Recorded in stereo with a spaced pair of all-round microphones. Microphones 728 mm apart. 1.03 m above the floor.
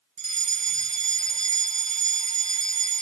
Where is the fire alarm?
60° right (ahead or behind).